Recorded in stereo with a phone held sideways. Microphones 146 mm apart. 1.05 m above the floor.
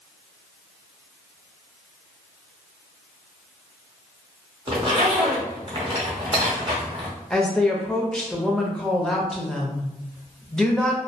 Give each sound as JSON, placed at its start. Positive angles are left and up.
{"t": 4.7, "sound": "a zipper", "side_deg": -35, "distance_m": 0.8}
{"t": 7.3, "sound": "a woman speaking", "side_deg": 5, "distance_m": 0.6}